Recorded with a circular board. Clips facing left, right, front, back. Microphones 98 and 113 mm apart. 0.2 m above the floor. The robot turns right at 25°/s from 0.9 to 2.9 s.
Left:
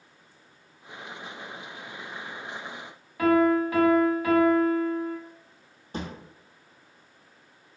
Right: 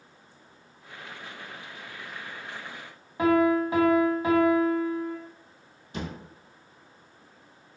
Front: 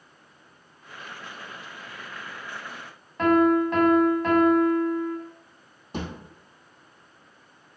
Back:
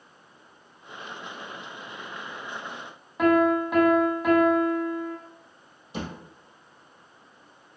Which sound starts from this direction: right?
A piano, at 3.2 s.